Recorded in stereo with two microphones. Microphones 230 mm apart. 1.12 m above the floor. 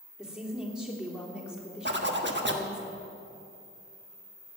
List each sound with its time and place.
0.2 s a woman speaking: 5° right (ahead or behind), 3 m
1.9 s a zipper: 50° right (ahead or behind), 1.2 m